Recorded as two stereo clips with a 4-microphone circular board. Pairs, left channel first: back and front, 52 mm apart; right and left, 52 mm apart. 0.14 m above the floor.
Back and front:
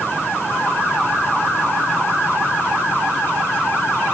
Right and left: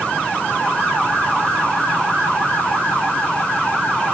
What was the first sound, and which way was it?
Only background noise.